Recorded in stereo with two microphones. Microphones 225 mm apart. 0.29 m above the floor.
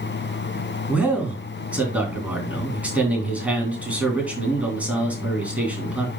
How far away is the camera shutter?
No camera shutter in this recording.